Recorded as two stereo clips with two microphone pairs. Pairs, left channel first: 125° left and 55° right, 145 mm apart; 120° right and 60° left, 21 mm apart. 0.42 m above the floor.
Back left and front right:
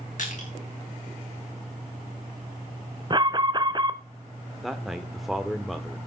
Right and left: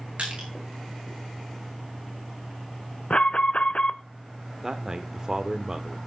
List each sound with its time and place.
0.2 s crushing: 95° left, 5.5 m
3.1 s an alarm: 110° right, 0.9 m
4.6 s a man speaking: 35° left, 0.8 m